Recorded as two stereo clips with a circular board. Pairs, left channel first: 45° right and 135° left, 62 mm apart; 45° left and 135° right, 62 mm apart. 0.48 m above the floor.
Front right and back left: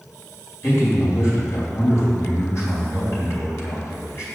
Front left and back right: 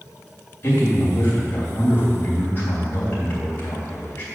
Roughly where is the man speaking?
Ahead.